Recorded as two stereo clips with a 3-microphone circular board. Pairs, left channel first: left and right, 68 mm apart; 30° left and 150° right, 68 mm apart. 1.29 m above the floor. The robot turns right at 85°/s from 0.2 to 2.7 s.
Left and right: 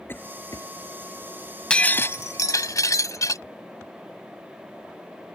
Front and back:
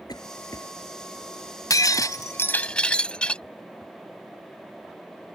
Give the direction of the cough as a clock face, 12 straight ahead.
11 o'clock.